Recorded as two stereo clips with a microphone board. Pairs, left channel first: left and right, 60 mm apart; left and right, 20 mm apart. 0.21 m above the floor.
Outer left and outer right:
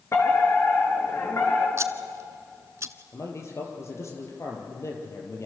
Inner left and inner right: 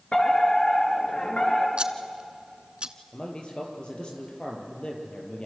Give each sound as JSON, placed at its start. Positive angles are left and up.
{"t": 0.1, "sound": "a fire alarm", "side_deg": 50, "distance_m": 6.0}
{"t": 1.8, "sound": "scissors", "side_deg": -50, "distance_m": 1.1}
{"t": 3.1, "sound": "a man speaking", "side_deg": 50, "distance_m": 5.5}